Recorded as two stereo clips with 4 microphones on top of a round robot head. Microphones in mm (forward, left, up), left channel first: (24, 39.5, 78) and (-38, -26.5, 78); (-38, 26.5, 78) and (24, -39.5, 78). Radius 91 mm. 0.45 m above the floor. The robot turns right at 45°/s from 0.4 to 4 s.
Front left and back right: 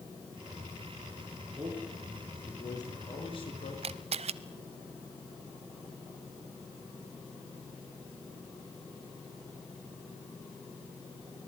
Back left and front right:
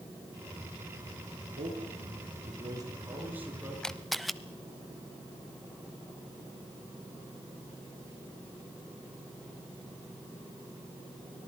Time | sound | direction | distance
1.6 | a man speaking | 55° right | 7 m
3.8 | a camera shutter | 145° right | 0.6 m